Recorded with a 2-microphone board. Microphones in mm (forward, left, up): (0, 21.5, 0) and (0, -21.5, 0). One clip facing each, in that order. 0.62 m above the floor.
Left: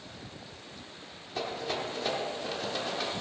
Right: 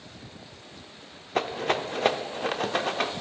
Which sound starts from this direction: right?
A rattle, at 1.4 s.